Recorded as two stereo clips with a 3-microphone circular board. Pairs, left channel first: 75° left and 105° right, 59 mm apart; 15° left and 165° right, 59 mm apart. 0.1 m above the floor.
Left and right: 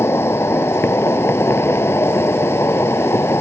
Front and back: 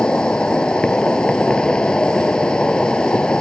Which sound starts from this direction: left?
An insect, at 0.0 s.